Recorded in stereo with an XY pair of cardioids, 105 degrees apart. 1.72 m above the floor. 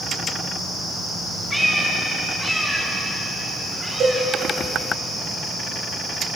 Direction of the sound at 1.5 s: 5° left.